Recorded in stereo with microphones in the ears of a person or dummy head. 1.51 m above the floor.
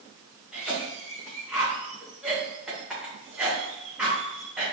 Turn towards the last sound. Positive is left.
turn(degrees=0)  # may be behind; listen again after turning